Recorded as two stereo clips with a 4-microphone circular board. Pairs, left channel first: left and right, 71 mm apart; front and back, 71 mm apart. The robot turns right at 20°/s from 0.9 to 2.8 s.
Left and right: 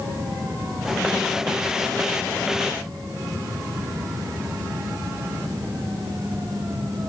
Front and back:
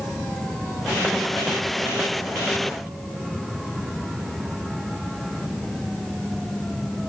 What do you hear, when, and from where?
Only background noise.